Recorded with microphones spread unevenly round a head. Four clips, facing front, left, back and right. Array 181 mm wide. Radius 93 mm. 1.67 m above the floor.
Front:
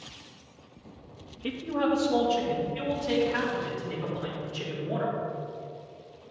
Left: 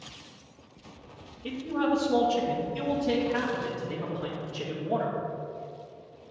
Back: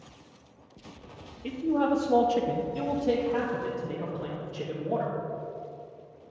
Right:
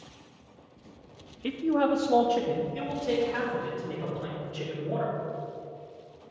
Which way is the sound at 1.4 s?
65° right.